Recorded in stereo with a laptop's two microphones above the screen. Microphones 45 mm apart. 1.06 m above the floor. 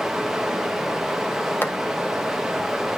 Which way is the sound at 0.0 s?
10° right (ahead or behind).